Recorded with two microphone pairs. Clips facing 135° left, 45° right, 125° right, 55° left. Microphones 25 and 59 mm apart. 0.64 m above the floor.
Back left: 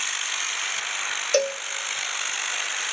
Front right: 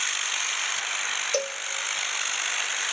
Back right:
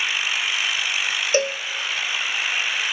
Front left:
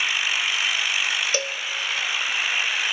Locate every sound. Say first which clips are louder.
1.3 s a cowbell: back left 6 dB, back right 6 dB; 170° right, 0.6 m